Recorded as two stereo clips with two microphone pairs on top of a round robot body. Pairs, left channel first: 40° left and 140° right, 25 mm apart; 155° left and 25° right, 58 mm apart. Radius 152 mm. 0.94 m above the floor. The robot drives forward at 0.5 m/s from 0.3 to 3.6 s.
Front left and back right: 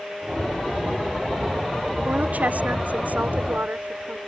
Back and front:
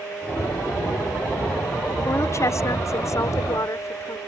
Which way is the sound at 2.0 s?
165° right.